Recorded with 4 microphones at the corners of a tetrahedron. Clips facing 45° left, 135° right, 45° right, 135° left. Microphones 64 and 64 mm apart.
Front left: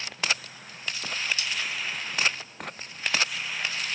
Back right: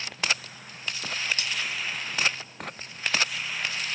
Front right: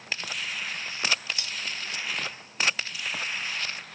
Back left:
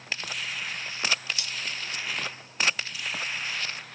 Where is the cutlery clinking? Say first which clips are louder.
Even, even; 105° right, 1.1 m.